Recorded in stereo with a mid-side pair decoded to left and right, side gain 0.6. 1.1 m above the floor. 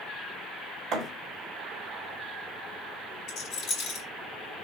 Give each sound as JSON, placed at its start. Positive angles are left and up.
{"t": 0.9, "sound": "a thud", "azimuth_deg": -45, "distance_m": 1.3}
{"t": 3.3, "sound": "a rattle", "azimuth_deg": 50, "distance_m": 2.5}